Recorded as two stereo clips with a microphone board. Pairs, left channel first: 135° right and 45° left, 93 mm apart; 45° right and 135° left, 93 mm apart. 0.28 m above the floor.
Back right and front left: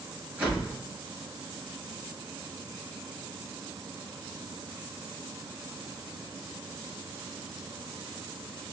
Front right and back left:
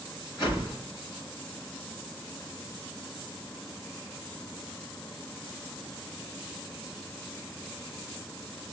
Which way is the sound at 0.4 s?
20° right.